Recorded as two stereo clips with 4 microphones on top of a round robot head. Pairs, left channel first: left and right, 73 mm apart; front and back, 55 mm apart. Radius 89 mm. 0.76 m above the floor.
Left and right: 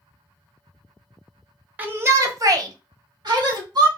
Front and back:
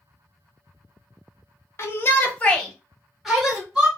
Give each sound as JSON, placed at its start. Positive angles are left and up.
{"t": 1.8, "sound": "a shout", "azimuth_deg": -30, "distance_m": 0.9}